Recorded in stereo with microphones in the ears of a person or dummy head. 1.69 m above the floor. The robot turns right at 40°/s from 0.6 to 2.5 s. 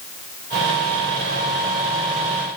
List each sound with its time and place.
Only background noise.